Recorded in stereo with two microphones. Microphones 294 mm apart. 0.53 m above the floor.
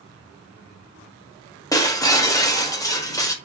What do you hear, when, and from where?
1.7 s breaking glass: 10° left (ahead or behind), 0.6 m